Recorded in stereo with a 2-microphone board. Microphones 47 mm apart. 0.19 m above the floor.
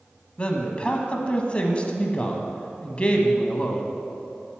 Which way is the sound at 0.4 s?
25° left (ahead or behind).